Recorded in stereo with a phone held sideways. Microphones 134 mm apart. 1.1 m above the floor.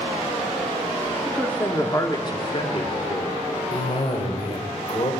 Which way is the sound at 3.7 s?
45° left (ahead or behind).